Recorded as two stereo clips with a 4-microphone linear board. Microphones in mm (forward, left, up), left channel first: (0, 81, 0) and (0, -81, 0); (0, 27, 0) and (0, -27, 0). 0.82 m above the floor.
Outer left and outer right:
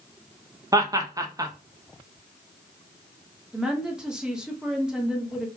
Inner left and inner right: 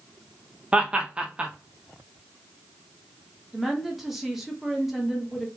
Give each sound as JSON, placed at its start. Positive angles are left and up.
{"t": 0.7, "sound": "laughter", "side_deg": -20, "distance_m": 0.7}
{"t": 3.5, "sound": "a woman speaking", "side_deg": -5, "distance_m": 1.0}